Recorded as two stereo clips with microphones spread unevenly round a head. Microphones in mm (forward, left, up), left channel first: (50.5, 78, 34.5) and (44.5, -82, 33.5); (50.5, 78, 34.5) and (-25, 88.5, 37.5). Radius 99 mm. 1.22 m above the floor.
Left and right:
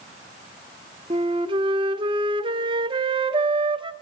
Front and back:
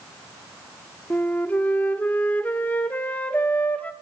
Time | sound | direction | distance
1.1 | a flute | 70° right | 0.8 m